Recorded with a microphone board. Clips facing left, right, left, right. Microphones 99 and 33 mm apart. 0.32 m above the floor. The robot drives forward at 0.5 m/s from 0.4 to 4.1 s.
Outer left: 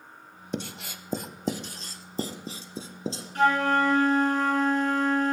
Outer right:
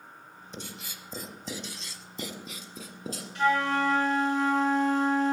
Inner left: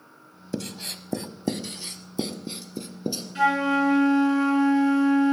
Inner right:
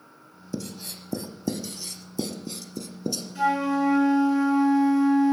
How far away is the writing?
About 0.8 m.